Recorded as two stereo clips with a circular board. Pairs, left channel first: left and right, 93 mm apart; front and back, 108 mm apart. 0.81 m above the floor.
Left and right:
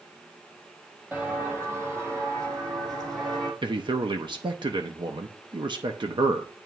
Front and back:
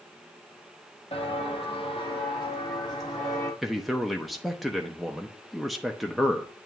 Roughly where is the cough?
I don't hear a cough.